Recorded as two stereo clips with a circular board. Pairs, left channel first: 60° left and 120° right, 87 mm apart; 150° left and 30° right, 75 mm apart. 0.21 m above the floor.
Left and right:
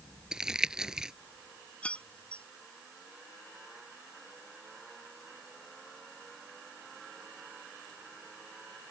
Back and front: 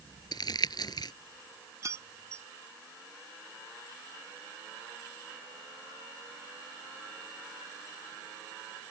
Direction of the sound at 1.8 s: 10° right.